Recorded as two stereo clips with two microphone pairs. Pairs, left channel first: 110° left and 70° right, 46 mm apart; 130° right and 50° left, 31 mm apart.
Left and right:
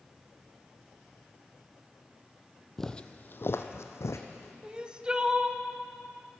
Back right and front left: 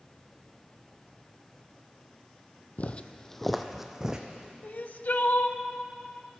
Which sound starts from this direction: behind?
Footsteps, at 2.8 s.